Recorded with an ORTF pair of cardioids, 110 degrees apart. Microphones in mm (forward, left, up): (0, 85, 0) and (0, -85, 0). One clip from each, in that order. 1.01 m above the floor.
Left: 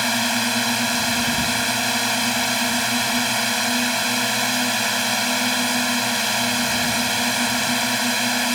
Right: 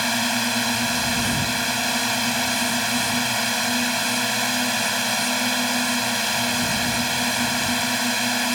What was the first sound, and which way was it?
A drone, 30° left.